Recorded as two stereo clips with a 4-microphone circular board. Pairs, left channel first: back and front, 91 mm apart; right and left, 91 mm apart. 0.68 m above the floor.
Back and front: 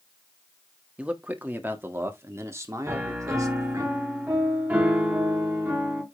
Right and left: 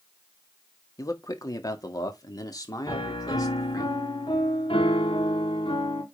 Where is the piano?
70° right, 3 m.